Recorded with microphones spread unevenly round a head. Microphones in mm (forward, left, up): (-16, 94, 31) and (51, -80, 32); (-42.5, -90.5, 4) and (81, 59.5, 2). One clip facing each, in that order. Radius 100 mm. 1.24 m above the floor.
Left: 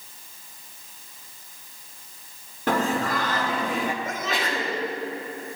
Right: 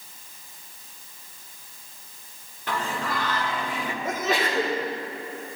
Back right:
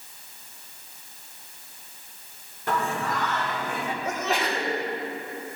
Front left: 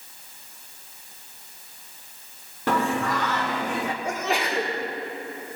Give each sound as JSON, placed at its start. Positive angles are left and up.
{"t": 2.7, "sound": "singing", "azimuth_deg": 70, "distance_m": 0.8}
{"t": 4.0, "sound": "a sneeze", "azimuth_deg": -30, "distance_m": 3.5}